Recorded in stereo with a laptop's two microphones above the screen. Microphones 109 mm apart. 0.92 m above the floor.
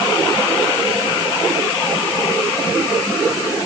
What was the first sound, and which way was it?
Only background noise.